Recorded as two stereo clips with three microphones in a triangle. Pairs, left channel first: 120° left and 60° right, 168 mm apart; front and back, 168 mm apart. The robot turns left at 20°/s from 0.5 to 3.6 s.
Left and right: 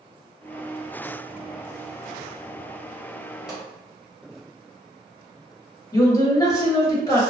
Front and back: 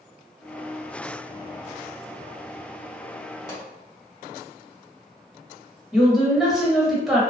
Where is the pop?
20° left, 1.5 m.